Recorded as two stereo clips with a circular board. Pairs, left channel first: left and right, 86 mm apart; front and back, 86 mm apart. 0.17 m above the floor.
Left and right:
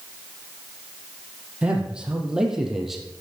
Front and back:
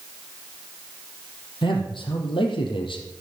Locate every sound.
1.6 s a man speaking: 15° right, 4.5 m; by 3.0 s straight ahead, 4 m